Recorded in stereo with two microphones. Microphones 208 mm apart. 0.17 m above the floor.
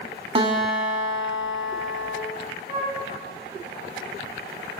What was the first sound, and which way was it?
A guitar, 25° right (ahead or behind).